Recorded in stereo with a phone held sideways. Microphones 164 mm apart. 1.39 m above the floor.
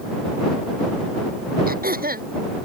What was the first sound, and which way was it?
Throat clearing, 65° right (ahead or behind).